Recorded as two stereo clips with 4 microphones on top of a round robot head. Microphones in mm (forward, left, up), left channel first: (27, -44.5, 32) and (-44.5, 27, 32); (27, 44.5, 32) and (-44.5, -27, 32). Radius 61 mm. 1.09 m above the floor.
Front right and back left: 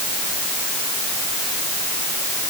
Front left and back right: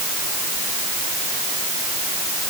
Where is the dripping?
I don't hear dripping.